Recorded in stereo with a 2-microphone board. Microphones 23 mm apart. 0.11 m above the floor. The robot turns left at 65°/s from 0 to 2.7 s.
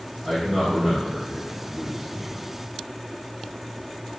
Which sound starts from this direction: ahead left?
A man speaking, at 0.2 s.